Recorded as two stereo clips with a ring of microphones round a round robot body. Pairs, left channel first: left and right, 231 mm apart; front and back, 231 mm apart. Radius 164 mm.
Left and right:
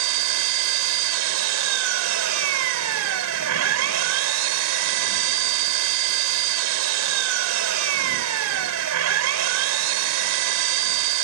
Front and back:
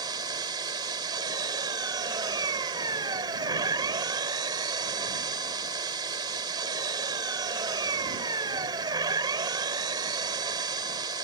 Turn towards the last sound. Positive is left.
turn(degrees=-100)